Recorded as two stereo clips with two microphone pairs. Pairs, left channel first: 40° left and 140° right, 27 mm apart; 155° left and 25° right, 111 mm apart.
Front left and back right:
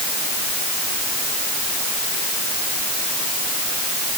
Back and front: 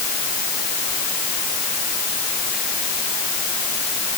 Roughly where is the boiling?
No boiling in this recording.